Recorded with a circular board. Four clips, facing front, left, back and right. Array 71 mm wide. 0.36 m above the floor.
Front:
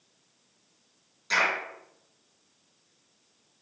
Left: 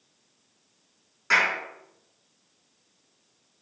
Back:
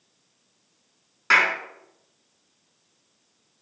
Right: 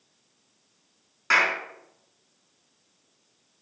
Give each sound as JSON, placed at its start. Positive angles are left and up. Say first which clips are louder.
{"t": 1.3, "sound": "a clap", "louder": "right 1 dB, back 6 dB", "azimuth_deg": -160, "distance_m": 4.0}